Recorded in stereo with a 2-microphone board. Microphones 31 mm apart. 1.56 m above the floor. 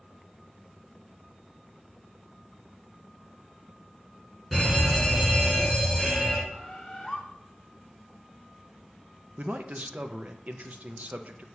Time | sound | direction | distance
4.5 | a fire alarm | 5° left (ahead or behind) | 3 m
6.5 | a bird | 15° left (ahead or behind) | 0.9 m
9.4 | a man speaking | 55° right (ahead or behind) | 0.6 m